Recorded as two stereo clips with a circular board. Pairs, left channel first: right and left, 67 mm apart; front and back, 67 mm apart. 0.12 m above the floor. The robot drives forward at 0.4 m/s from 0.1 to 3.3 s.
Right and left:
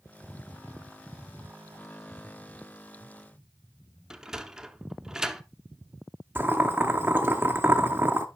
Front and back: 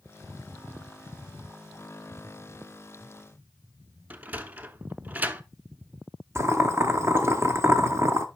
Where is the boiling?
140° left, 0.7 m.